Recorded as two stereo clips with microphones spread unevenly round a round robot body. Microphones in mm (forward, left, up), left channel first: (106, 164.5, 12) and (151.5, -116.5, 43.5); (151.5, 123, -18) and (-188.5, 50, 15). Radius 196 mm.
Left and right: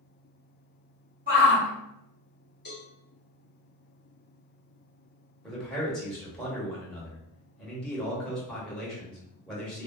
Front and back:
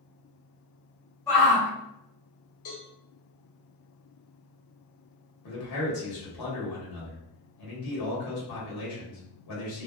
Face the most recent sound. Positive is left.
turn(degrees=15)